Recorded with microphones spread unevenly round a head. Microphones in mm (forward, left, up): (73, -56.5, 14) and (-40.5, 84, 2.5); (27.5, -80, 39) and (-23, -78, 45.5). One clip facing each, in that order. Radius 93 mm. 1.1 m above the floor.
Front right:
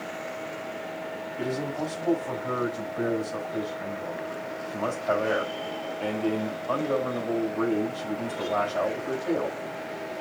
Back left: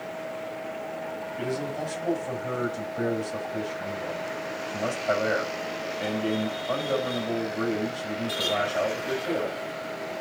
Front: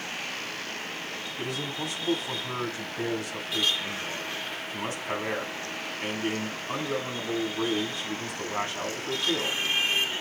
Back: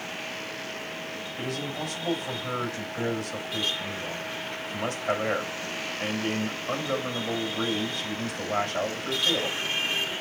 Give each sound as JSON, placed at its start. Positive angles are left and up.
{"t": 1.4, "sound": "a man speaking", "azimuth_deg": -150, "distance_m": 6.0}